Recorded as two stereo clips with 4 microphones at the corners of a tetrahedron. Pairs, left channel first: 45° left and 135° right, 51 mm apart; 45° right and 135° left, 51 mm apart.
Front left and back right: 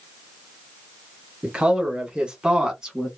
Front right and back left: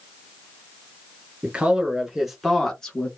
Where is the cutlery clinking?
I don't hear cutlery clinking.